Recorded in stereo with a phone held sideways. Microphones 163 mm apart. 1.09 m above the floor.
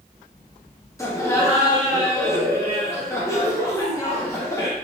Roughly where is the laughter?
Centre.